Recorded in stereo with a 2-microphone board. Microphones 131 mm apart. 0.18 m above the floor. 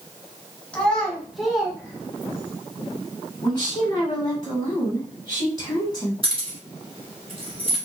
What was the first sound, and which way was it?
A child speaking, 10° left (ahead or behind).